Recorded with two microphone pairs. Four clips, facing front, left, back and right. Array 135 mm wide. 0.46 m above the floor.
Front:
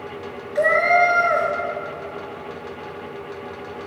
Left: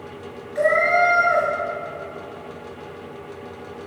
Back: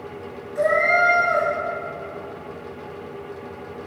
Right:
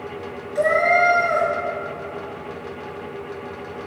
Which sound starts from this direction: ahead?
A cat meowing, at 0.6 s.